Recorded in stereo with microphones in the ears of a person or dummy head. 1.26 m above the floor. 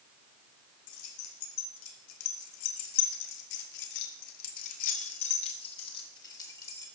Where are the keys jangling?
80° left, 2.5 m; by 6.9 s 15° left (ahead or behind), 2.5 m.